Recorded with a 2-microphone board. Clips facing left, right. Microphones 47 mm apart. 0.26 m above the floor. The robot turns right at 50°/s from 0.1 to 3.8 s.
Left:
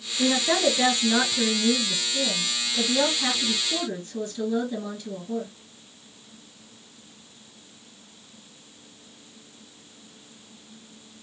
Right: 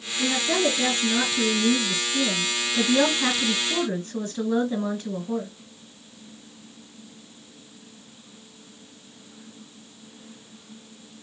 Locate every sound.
0.2 s a woman speaking: 75° left, 1.4 m; by 5.5 s 105° right, 1.4 m